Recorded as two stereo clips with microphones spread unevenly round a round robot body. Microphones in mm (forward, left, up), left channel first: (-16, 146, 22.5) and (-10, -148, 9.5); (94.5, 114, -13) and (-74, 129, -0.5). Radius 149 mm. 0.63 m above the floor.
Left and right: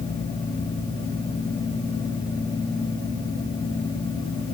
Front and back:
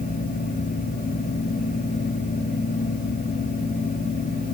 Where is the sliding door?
I don't hear a sliding door.